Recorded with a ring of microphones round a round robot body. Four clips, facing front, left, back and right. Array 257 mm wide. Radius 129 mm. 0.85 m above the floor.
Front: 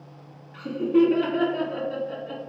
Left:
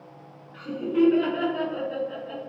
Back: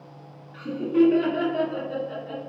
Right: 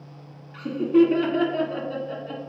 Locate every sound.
0.5 s laughter: 90° right, 3 m